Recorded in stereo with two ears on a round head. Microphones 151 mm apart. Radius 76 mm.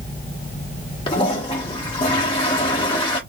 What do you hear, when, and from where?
1.1 s a toilet flushing: 30° left (ahead or behind), 1.3 m